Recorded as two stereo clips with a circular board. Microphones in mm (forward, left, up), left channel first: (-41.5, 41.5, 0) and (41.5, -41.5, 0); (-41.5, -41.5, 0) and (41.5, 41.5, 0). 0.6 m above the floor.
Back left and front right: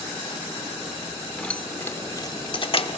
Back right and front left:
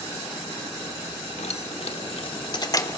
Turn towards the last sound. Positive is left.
turn(degrees=160)